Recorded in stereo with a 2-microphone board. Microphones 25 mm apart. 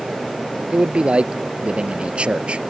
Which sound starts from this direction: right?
A man speaking, at 0.7 s.